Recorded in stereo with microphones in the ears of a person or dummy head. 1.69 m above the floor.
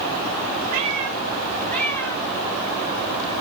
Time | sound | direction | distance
0.7 | a cat meowing | 30° right (ahead or behind) | 1.2 m